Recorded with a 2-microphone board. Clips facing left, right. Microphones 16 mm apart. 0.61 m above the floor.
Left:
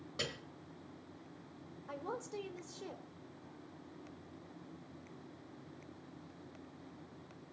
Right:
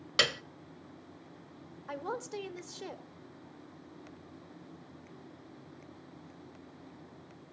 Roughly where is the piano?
Right.